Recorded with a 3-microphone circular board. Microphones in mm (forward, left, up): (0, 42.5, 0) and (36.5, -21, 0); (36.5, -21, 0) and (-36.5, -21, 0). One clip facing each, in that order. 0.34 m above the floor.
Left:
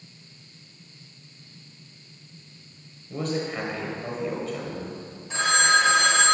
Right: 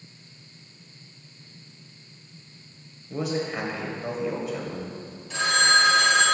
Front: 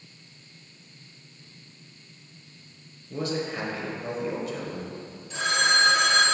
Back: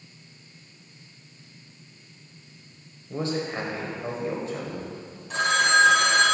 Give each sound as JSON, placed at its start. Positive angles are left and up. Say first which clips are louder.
{"t": 3.1, "sound": "a man speaking", "louder": "right 1 dB, back 1 dB", "azimuth_deg": -140, "distance_m": 1.2}
{"t": 5.3, "sound": "a phone ringing", "louder": "left 1 dB, back 3 dB", "azimuth_deg": 180, "distance_m": 1.2}